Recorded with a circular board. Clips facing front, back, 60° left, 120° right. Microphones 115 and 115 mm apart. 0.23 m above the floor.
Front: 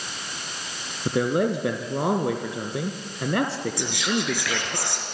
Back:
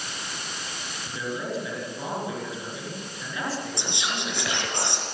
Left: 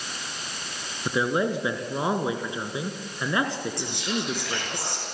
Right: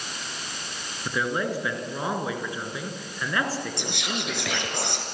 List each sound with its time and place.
1.1 s a man speaking: 10° right, 3 m
3.8 s whispering: 115° right, 4.5 m